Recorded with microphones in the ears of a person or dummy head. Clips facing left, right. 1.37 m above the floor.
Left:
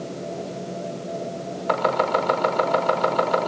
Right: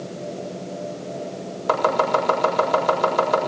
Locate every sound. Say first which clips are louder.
1.7 s chopping: right 2 dB; 55° right (ahead or behind), 7.5 m